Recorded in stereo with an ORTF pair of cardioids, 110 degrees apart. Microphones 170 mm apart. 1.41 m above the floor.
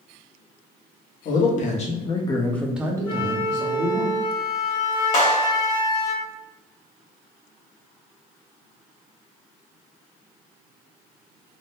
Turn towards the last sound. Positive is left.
turn(degrees=45)